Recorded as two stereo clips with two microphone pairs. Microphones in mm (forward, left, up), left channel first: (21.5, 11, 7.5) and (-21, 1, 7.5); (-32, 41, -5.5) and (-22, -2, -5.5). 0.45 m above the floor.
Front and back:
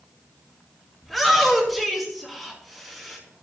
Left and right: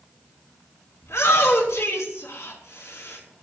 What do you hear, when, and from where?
1.0 s a shout: 105° left, 4 m